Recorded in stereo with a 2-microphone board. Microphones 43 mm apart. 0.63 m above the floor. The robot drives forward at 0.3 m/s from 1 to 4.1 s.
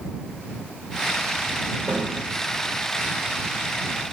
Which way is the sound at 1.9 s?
70° right (ahead or behind).